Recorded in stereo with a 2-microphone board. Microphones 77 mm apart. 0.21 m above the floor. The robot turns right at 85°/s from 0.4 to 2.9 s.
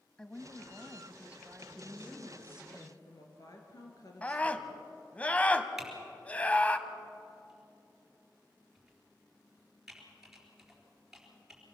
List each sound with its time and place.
0.2 s a woman speaking: 10° left (ahead or behind), 1.0 m; by 2.7 s 5° right (ahead or behind), 1.0 m
1.7 s a woman speaking: 40° right, 3.5 m; by 4.9 s 60° left, 3.5 m
4.2 s a scream: 20° left (ahead or behind), 1.1 m
5.8 s typing on a keyboard: 5° right (ahead or behind), 4 m